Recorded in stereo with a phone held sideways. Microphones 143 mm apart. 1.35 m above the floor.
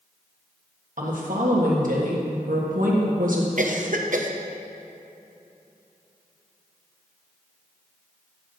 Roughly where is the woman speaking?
Right.